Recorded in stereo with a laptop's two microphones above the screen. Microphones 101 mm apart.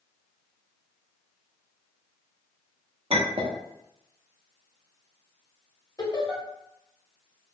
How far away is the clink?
About 0.7 m.